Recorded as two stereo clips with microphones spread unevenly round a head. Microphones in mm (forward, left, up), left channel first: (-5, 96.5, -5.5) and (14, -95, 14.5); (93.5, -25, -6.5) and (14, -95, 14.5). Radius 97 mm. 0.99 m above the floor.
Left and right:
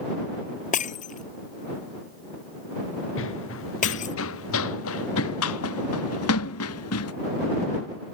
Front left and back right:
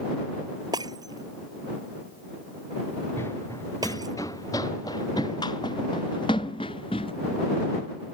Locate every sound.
0.7 s breaking glass: 150° left
3.2 s running footsteps: 120° left; by 7.1 s 110° left